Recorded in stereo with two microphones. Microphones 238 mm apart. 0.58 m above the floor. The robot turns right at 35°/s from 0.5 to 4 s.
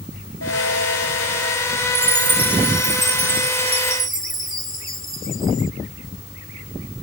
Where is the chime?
85° right; by 5.7 s 15° right.